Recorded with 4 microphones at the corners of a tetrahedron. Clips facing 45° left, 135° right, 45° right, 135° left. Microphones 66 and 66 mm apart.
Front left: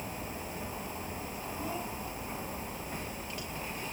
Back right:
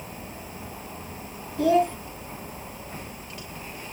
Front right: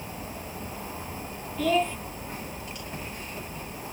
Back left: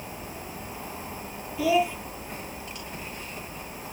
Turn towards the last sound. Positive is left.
turn(degrees=-145)